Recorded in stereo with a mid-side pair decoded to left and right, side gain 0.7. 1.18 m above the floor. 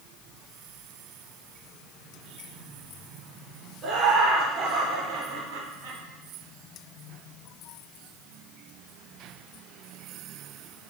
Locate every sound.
3.8 s laughter: 40° right, 4 m; by 6.0 s 55° right, 4.5 m